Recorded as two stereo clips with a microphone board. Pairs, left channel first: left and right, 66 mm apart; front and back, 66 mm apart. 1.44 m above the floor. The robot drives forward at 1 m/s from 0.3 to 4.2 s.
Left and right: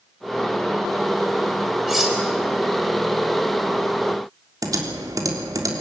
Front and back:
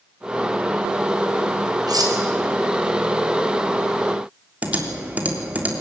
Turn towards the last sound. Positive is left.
turn(degrees=-115)